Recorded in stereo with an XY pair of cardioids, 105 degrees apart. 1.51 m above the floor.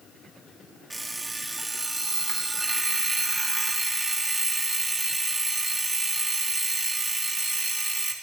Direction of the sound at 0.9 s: 25° right.